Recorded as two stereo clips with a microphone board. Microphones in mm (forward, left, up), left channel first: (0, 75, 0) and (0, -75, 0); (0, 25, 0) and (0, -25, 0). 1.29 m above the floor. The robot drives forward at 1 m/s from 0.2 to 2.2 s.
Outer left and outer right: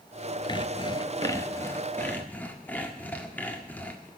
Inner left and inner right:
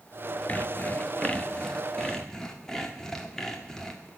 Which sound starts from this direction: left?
Sawing, at 0.5 s.